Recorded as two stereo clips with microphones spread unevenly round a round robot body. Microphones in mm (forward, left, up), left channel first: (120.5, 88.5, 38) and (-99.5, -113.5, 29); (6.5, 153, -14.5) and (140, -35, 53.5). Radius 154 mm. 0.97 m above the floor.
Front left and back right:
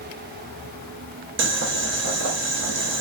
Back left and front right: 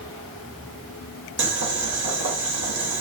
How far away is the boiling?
About 0.9 m.